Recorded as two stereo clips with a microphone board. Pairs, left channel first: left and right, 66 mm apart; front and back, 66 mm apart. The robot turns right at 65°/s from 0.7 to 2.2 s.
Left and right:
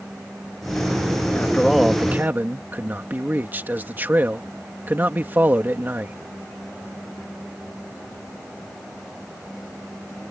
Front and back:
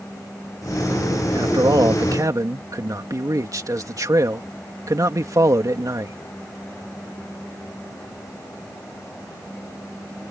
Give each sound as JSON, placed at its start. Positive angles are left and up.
{"t": 1.4, "sound": "a man speaking", "azimuth_deg": 155}